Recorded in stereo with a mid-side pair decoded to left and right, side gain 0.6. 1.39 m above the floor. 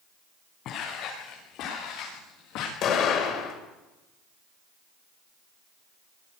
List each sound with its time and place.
0.7 s footsteps: 60° left, 9.5 m; by 2.7 s 75° left, 10 m
2.8 s an explosion: 60° left, 6.5 m